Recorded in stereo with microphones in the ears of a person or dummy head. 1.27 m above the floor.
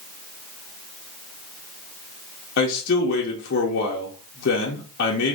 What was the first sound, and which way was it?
A man speaking, 50° left (ahead or behind).